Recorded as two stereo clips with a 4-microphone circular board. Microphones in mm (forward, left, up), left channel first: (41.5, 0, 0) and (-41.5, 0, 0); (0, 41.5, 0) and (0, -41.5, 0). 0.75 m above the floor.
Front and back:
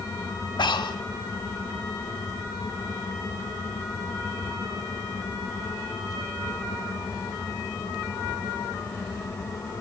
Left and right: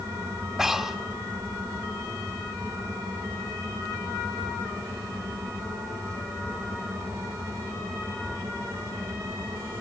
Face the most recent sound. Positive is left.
turn(degrees=-5)